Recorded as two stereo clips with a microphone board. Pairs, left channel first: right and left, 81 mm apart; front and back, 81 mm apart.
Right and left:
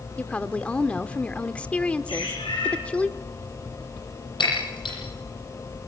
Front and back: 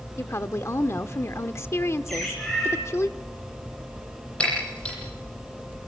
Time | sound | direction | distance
0.2 | a woman speaking | 25° right | 0.9 m
2.1 | a bird | 90° right | 8.5 m
4.4 | breaking glass | 75° right | 9.5 m